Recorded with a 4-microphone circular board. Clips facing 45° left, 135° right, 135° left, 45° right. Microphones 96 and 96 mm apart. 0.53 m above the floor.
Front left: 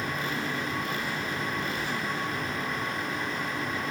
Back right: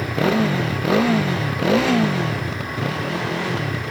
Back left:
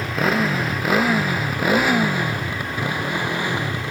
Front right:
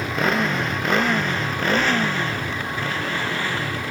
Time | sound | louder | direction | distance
0.0 | a motorcycle | back right 12 dB, back left 1 dB | 135° right | ?